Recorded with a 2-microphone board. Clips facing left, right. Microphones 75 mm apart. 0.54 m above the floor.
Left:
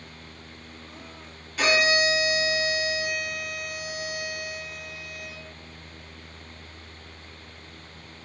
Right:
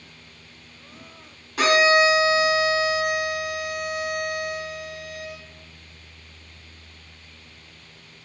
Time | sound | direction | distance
1.6 | a violin | 75° right (ahead or behind) | 3 m